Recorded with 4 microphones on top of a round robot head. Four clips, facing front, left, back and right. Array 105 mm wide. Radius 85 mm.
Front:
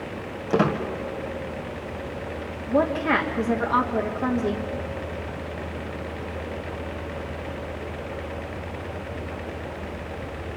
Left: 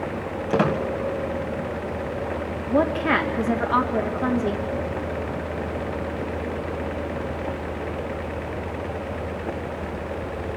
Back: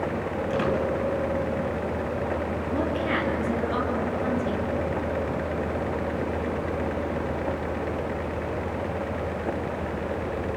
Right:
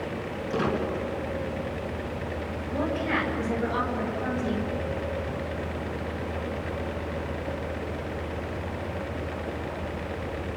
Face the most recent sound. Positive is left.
turn(degrees=60)